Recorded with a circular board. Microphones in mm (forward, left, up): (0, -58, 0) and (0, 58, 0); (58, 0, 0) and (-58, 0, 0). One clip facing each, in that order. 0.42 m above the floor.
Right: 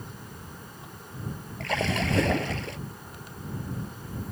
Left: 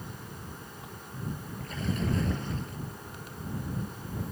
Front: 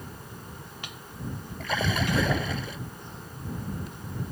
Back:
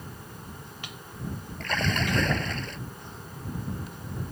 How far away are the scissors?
I don't hear scissors.